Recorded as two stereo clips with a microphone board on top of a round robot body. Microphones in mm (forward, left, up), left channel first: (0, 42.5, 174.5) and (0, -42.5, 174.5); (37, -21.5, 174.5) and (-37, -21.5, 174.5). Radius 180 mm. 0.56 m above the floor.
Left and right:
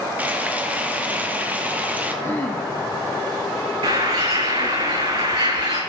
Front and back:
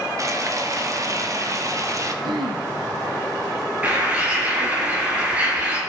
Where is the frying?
155° right, 1.6 m.